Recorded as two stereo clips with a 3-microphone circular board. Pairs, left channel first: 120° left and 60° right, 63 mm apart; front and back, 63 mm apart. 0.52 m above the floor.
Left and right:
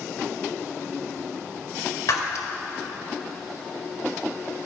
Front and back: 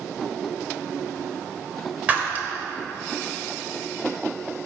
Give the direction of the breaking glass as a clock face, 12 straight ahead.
8 o'clock.